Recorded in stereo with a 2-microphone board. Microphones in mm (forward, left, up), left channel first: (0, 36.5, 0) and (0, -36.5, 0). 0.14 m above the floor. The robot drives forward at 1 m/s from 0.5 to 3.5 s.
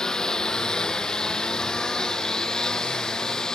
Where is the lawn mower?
10° left (ahead or behind).